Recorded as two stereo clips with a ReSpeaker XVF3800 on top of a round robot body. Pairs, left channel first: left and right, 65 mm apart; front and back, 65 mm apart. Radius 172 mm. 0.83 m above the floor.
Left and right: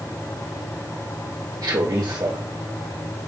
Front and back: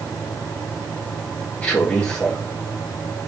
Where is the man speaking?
65° right, 2 m.